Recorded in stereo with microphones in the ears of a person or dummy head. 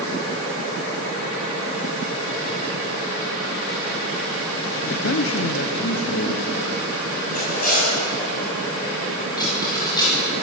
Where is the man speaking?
70° left (ahead or behind), 0.6 m; by 7.0 s 75° left (ahead or behind), 3.5 m.